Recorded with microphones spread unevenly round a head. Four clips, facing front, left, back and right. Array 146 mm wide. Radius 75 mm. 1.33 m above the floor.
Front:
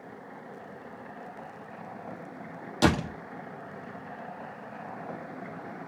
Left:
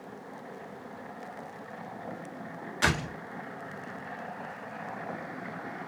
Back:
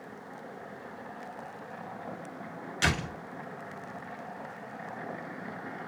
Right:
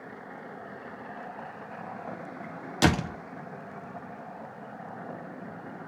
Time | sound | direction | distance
2.8 | a door slam | 50° right | 1.4 m